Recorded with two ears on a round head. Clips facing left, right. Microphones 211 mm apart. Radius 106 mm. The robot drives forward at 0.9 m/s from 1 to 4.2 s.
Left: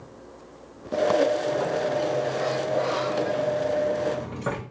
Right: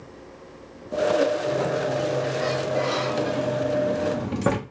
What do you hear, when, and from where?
1.4 s a sliding door: 30° right (ahead or behind), 3 m; by 4.6 s 60° right (ahead or behind), 1.7 m